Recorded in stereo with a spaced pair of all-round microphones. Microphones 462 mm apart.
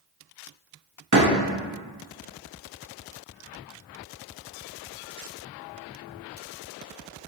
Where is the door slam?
40° right (ahead or behind), 1.0 m.